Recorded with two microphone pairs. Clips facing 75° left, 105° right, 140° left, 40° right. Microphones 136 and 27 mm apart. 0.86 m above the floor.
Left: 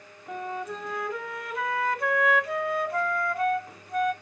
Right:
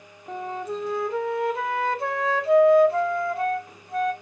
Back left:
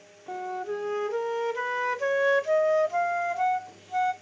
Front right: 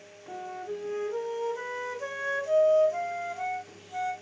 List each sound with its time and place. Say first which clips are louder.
0.3 s a flute: right 3 dB, back left 5 dB; 165° right, 0.7 m